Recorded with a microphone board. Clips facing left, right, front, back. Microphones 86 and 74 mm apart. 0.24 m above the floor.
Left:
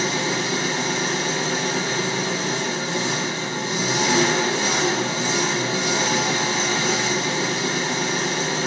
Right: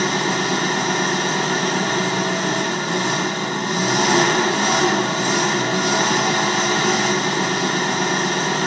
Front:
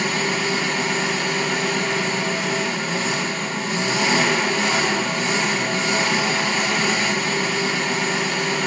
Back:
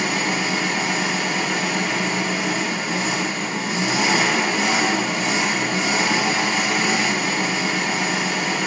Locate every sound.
0.0 s an engine running: 100° right, 0.9 m